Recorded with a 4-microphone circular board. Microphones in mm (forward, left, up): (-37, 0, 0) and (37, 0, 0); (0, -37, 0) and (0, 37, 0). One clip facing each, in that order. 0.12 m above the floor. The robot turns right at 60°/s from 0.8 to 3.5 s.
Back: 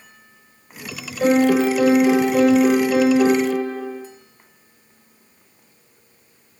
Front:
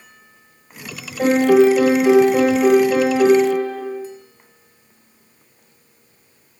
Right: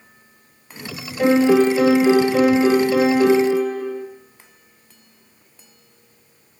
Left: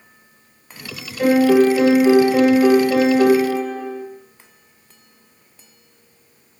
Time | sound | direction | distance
1.2 | a piano | 20° right | 2 m